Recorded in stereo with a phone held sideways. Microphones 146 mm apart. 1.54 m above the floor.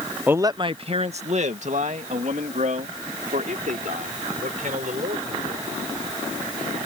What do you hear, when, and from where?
0.3 s a man speaking: 10° right (ahead or behind); by 5.6 s 65° right (ahead or behind)